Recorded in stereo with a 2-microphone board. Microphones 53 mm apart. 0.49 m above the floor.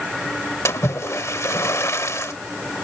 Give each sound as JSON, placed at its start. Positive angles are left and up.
{"t": 0.7, "sound": "a splash", "side_deg": 70}